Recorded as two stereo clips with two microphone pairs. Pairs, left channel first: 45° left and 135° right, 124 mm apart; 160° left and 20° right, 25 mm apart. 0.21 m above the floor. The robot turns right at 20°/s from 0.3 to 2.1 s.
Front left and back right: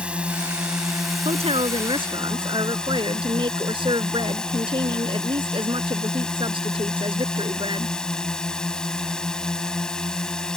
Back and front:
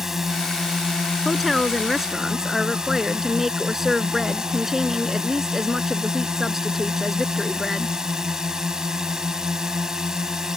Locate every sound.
0.0 s a drone: 65° right; by 10.6 s 30° right
1.2 s a woman speaking: 115° right; by 8.0 s 95° right